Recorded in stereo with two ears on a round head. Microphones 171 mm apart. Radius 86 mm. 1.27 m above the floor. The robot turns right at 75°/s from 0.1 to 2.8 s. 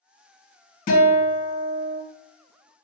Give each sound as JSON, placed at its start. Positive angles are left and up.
{"t": 0.9, "sound": "a guitar", "azimuth_deg": 45, "distance_m": 1.1}